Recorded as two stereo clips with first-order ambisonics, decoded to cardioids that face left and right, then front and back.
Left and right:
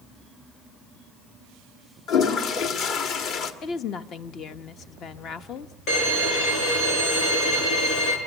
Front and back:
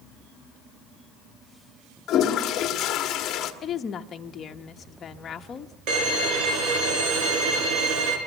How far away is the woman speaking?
About 1.0 m.